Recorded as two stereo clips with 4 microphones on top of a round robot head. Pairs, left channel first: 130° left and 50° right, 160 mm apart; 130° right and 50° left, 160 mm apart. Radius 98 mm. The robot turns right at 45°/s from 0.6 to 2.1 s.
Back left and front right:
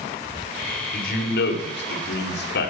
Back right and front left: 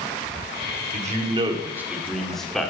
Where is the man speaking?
90° left, 2 m; by 2.7 s 145° left, 2 m.